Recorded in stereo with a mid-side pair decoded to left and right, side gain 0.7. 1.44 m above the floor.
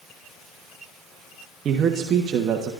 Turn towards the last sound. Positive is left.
turn(degrees=-45)